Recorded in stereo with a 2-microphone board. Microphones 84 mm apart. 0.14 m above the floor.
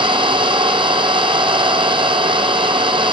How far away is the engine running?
About 1.3 m.